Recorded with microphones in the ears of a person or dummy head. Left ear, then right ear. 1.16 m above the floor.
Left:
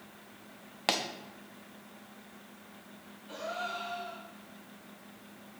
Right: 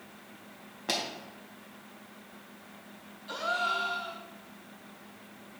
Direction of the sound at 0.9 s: 25° left (ahead or behind).